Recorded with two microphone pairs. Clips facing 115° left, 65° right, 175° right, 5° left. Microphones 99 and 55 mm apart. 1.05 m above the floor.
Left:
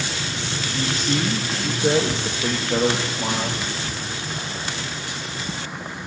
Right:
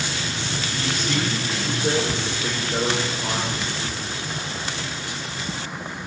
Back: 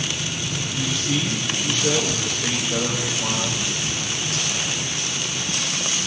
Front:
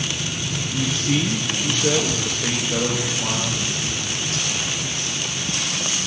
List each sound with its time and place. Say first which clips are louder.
0.7 s a man speaking: left 3 dB, front 3 dB; 40° left, 1.0 m; by 3.6 s 100° left, 2.0 m